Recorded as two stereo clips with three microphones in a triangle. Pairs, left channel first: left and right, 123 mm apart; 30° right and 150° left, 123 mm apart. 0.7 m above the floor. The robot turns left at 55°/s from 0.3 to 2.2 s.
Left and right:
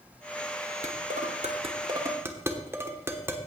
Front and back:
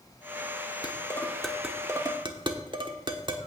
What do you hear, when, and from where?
0.8 s dishes clattering: 85° right, 1.1 m; by 3.4 s 160° right, 1.1 m